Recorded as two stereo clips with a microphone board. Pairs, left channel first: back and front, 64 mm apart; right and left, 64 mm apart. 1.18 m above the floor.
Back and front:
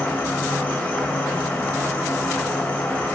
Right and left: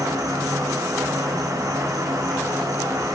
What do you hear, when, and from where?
0.0 s an insect: 115° left, 0.8 m